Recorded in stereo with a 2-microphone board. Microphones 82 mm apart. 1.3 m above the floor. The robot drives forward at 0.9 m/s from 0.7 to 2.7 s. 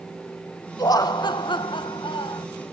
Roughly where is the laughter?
Left.